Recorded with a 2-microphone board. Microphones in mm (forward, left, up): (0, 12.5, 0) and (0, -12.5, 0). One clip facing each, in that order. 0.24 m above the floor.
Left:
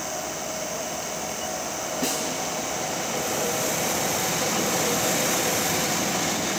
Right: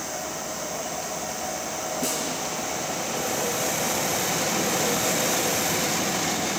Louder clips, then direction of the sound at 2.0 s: Left 2 dB; 20° left (ahead or behind).